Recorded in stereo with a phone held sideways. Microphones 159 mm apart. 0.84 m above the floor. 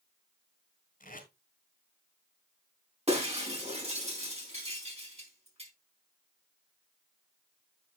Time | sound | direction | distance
1.0 | tape being pulled | 60° left (ahead or behind) | 3 m
3.1 | breaking glass | 40° right (ahead or behind) | 4.5 m